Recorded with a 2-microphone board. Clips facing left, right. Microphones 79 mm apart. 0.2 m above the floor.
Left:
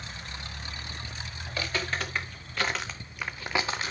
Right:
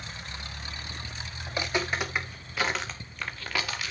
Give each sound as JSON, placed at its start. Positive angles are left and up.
{"t": 1.5, "sound": "footsteps", "side_deg": -20, "distance_m": 4.5}